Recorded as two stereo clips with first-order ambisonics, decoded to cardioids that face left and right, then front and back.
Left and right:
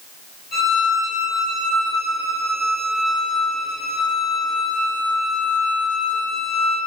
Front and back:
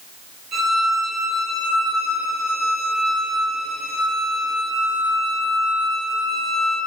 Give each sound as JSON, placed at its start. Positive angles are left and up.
{"t": 0.5, "sound": "a violin", "azimuth_deg": 130, "distance_m": 1.7}